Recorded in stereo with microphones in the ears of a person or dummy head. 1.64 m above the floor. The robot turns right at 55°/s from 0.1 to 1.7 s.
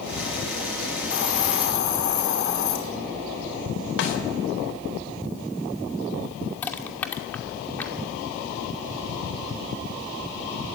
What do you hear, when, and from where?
1.1 s a hiss: 75° left, 4.5 m; by 2.8 s 110° left, 4.5 m
4.0 s a snare drum: 70° left (ahead or behind), 3.5 m
6.6 s crushing: 5° left (ahead or behind), 2.5 m